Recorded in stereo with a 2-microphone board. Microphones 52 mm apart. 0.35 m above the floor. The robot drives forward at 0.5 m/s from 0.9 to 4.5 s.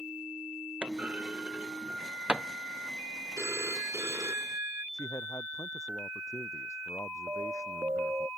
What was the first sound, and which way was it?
A clunk, 20° right (ahead or behind).